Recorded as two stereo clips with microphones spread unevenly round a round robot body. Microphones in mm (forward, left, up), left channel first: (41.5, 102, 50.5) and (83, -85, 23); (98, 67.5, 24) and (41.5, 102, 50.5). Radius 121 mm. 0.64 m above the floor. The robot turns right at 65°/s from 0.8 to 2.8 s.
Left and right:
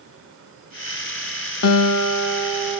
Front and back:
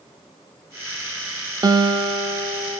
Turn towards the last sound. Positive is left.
turn(degrees=-175)